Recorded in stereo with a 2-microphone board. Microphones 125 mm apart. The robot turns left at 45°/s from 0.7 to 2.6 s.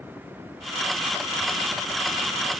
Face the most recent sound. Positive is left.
No sound to turn to.